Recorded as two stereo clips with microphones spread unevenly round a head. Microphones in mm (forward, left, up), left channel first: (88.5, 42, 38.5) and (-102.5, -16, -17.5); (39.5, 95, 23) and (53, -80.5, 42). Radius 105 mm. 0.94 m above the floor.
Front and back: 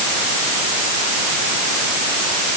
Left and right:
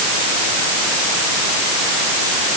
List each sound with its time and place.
Only background noise.